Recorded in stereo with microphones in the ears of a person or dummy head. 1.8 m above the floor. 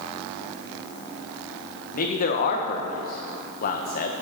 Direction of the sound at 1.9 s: 50° left (ahead or behind).